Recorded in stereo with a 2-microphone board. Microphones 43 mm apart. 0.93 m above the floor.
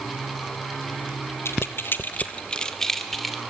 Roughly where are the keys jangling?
Left.